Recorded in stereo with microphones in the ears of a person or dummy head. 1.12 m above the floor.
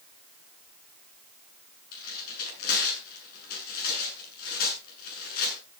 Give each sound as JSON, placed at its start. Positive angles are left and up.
{"t": 1.9, "sound": "tearing paper", "side_deg": 55, "distance_m": 8.0}